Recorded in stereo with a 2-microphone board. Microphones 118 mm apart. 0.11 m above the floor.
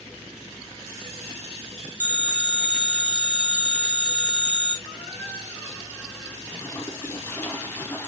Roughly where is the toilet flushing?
Centre.